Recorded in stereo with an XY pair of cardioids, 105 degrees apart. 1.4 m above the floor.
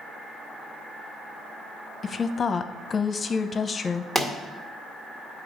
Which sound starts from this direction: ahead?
A pop, at 4.2 s.